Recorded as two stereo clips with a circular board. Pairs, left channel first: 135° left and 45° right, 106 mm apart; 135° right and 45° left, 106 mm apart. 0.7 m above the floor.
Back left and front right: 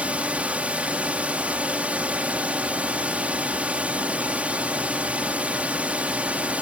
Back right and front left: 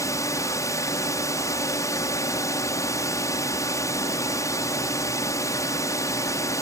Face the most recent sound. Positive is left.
turn(degrees=-110)